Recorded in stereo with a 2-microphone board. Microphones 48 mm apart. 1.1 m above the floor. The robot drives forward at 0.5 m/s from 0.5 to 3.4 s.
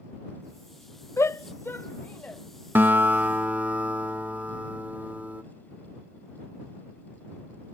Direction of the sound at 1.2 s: 70° left (ahead or behind).